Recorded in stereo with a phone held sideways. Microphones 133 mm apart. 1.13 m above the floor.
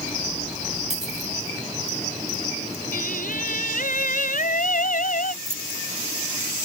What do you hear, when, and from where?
0.9 s a dropped coin: 55° right (ahead or behind)
2.9 s singing: 80° left
5.4 s keys jangling: 20° right (ahead or behind)